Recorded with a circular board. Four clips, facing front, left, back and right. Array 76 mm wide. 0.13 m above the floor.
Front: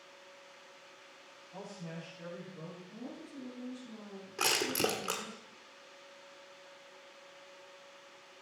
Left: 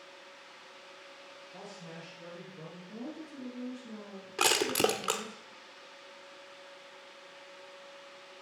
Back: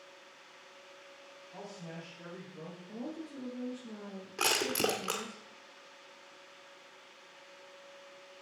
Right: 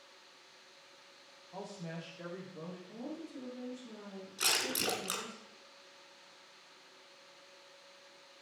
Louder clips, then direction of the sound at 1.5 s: Right 4 dB, front 1 dB; 90° right.